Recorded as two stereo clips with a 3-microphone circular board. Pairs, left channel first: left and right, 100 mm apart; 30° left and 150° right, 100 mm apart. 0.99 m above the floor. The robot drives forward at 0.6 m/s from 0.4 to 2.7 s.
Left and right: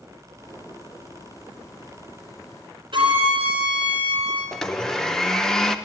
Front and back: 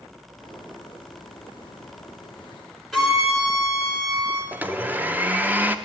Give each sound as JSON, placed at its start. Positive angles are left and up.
{"t": 2.9, "sound": "a violin", "azimuth_deg": -60, "distance_m": 3.5}
{"t": 4.5, "sound": "a blender", "azimuth_deg": 170, "distance_m": 0.6}